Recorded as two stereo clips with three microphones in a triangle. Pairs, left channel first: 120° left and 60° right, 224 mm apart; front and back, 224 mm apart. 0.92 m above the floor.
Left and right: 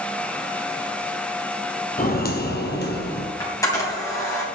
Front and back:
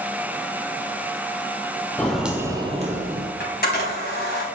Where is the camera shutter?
45° left, 3 m.